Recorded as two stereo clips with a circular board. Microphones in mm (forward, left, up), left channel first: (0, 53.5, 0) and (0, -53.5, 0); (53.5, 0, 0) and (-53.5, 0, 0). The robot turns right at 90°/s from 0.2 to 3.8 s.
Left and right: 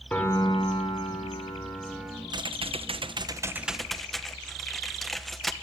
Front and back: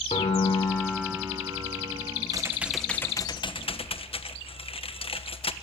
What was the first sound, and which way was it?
A piano, 15° left.